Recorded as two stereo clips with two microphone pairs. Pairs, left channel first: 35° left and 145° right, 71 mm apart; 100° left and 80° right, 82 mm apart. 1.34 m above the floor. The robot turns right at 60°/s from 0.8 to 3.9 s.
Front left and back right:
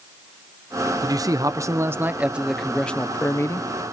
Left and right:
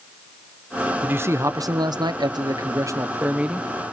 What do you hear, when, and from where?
1.0 s a man speaking: 150° right, 0.8 m; by 3.7 s 10° left, 0.8 m